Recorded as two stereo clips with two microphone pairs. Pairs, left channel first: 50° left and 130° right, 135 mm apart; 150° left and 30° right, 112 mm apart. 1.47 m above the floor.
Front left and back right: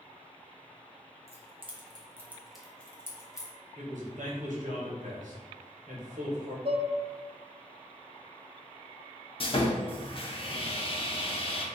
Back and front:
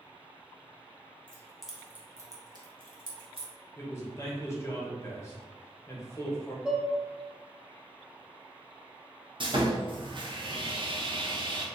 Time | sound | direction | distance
1.3 | keys jangling | 135° right | 0.9 m
3.8 | a man speaking | 145° right | 1.0 m
6.7 | dishes clattering | 110° right | 0.7 m
9.4 | sawing | 5° left | 0.5 m